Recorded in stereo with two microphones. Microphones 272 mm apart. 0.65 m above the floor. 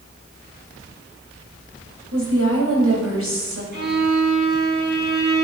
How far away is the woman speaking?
About 3.5 m.